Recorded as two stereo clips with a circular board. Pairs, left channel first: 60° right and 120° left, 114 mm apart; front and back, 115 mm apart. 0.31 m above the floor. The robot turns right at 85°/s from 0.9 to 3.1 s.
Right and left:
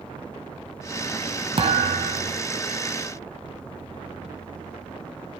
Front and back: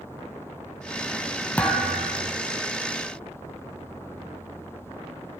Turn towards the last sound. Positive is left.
turn(degrees=-150)